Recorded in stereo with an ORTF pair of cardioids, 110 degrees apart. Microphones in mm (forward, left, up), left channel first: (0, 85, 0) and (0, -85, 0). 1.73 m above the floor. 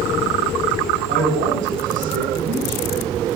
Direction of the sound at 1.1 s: 60° right.